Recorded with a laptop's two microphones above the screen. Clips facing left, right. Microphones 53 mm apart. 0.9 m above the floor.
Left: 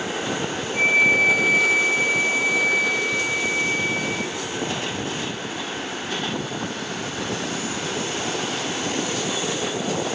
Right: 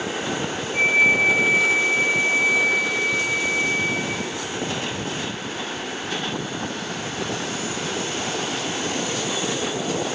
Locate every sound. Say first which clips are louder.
0.7 s a flute: even; 25° right (ahead or behind), 1.0 m